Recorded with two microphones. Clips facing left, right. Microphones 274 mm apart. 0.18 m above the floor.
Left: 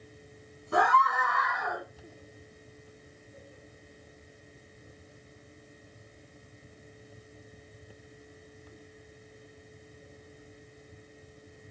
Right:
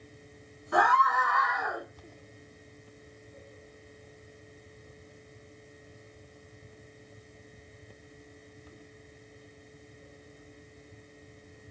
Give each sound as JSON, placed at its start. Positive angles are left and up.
{"t": 0.7, "sound": "a scream", "side_deg": 30, "distance_m": 1.5}